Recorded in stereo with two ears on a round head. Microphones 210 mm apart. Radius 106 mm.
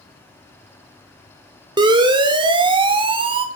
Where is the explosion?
No explosion in this recording.